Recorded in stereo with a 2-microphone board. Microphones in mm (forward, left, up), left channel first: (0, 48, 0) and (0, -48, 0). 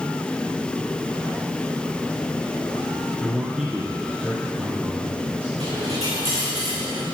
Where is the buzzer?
No buzzer in this recording.